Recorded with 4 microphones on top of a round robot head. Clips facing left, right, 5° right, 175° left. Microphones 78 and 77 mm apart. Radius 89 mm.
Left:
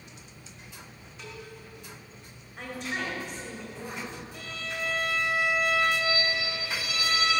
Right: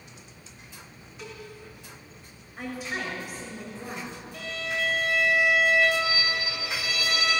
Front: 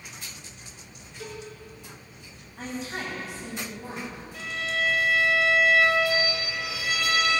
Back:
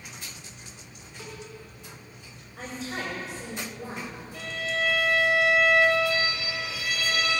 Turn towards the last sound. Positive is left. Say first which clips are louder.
# right 7 dB, even
turn(degrees=-90)